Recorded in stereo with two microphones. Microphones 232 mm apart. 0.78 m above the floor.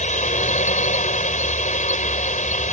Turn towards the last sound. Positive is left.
turn(degrees=30)  # may be behind; listen again after turning